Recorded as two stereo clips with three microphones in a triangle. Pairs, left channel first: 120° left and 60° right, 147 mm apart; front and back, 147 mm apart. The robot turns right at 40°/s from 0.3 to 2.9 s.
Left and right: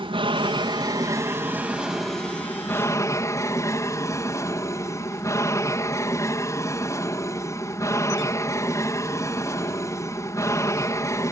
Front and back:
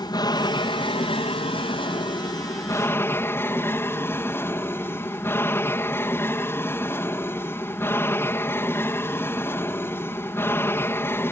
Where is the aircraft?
40° right; by 11.3 s 65° left.